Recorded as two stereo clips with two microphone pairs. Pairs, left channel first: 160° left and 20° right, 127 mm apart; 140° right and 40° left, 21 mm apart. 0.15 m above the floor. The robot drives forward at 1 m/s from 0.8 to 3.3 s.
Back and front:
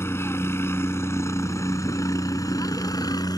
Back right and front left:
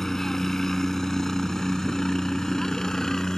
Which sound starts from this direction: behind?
A helicopter, at 0.0 s.